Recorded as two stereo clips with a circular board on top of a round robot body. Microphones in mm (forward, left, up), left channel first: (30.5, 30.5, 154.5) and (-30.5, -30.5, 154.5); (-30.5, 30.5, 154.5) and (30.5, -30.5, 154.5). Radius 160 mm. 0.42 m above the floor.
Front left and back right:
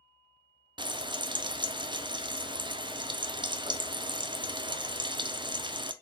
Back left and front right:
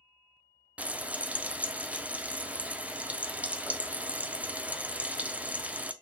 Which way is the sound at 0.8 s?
120° right.